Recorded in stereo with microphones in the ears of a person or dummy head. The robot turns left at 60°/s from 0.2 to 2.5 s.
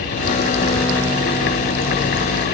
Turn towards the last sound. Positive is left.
No sound to turn to.